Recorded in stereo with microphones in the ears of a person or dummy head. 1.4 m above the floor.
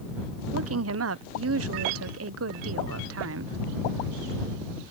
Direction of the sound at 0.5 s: 70° right (ahead or behind).